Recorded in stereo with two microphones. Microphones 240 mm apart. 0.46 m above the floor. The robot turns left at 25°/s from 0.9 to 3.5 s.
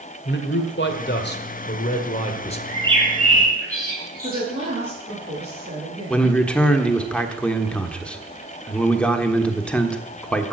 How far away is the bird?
About 5.5 m.